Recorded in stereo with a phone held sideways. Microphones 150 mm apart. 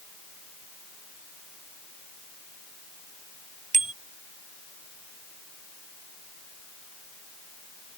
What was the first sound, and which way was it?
A bicycle bell, 55° right (ahead or behind).